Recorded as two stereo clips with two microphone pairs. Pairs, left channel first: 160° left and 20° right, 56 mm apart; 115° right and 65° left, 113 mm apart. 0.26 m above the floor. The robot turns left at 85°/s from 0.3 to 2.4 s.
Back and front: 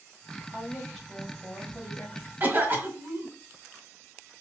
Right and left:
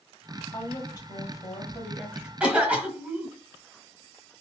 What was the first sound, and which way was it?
A woman speaking, 75° right.